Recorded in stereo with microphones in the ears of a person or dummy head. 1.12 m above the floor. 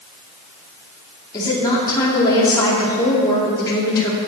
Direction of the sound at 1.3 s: 20° left (ahead or behind).